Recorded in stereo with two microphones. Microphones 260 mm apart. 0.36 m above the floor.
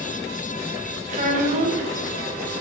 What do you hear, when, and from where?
1.1 s a child speaking: 30° right (ahead or behind), 1.1 m